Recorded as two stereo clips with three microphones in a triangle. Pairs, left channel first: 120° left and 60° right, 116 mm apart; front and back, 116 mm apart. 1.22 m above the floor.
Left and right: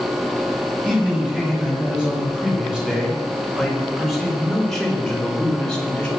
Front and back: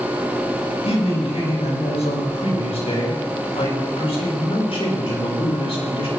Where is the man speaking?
20° left, 7 m; by 6.1 s 40° left, 4 m.